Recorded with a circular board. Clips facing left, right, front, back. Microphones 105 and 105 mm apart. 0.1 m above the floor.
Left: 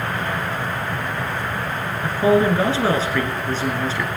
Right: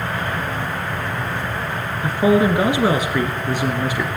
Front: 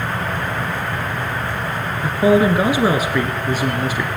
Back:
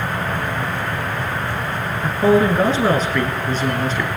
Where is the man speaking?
50° right, 1.3 m.